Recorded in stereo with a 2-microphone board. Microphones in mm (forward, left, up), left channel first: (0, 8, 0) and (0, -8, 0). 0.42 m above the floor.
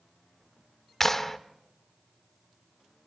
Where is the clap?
20° left (ahead or behind), 0.9 m.